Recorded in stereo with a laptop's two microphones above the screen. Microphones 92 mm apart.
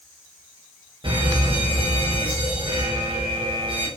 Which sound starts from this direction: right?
A fire alarm, at 1.0 s.